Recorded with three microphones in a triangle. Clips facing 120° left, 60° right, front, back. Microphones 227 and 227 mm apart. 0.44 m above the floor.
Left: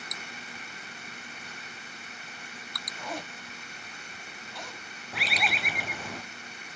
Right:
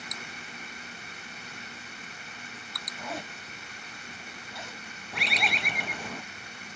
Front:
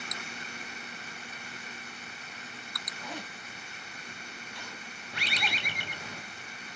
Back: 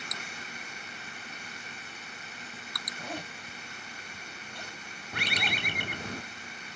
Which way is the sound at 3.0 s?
145° right.